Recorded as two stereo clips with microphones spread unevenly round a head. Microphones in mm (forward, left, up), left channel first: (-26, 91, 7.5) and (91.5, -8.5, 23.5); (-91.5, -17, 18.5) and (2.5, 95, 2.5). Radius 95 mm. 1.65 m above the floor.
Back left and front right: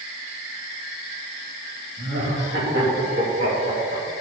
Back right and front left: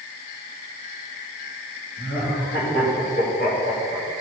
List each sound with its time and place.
2.0 s laughter: 85° right, 3 m